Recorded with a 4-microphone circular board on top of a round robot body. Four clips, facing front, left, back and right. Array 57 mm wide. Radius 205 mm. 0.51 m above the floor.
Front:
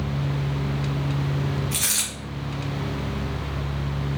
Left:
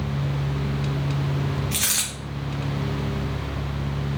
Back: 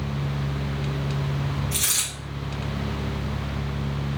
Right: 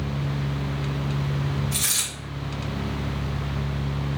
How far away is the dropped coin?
About 0.6 m.